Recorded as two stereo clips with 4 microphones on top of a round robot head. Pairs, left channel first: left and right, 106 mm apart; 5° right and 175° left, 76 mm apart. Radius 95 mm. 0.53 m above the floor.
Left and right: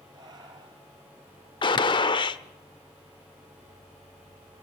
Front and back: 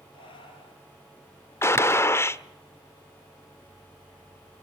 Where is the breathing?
35° right, 3 m.